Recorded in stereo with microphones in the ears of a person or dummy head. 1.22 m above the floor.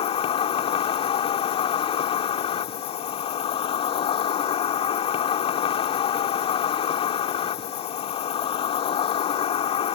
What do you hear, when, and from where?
0.0 s an insect: 40° left (ahead or behind)